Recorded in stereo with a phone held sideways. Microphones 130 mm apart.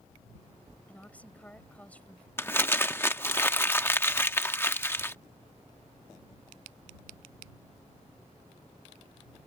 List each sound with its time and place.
0.9 s a woman speaking: 10° left (ahead or behind)
2.4 s crumpling: 20° left (ahead or behind)